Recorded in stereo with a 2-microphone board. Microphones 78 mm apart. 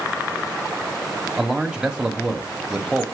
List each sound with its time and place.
1.4 s a man speaking: 10° right (ahead or behind), 0.9 m